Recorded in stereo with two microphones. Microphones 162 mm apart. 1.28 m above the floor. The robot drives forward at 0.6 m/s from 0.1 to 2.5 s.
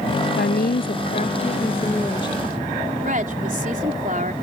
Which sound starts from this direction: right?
A woman speaking, at 3.0 s.